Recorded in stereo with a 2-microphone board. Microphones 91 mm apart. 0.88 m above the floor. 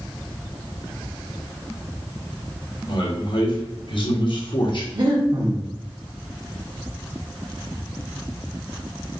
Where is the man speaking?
60° left (ahead or behind), 1.4 m.